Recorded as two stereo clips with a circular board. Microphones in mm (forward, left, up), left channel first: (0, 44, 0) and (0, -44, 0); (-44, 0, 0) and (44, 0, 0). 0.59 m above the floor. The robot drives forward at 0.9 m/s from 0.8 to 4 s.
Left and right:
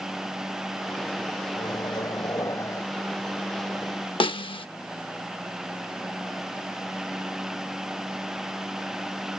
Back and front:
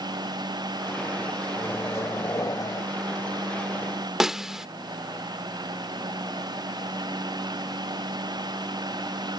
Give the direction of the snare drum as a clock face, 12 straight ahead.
9 o'clock.